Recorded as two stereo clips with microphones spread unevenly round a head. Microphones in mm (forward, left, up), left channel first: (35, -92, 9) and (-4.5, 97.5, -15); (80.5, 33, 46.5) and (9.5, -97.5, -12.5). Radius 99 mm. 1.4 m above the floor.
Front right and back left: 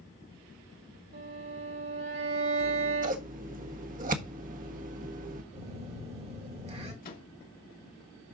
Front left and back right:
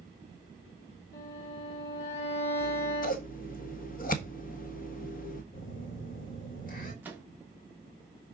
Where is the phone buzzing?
45° left, 3.5 m.